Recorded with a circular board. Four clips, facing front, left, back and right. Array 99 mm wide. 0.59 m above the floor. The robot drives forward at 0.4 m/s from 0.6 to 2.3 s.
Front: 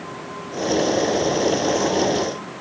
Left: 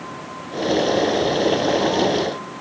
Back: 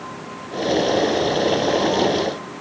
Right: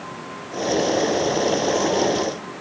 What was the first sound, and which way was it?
Only background noise.